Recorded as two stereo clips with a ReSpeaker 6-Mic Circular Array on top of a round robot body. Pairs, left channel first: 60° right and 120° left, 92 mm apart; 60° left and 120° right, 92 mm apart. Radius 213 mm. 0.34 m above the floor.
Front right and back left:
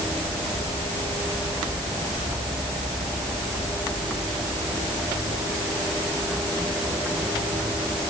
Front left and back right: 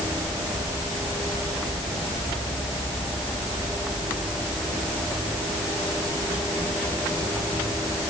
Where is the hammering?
I don't hear hammering.